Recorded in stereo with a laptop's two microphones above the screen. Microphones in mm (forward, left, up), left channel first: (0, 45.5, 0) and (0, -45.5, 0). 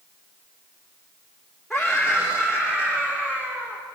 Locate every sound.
1.7 s a scream: 5° left (ahead or behind), 2 m; by 3.8 s 20° right (ahead or behind), 3 m